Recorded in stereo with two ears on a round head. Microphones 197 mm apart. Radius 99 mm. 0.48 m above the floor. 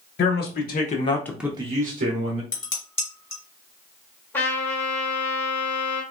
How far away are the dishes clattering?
About 2.5 m.